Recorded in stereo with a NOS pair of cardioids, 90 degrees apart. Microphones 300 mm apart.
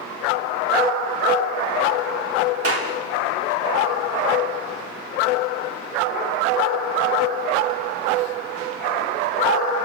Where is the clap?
50° right, 4 m.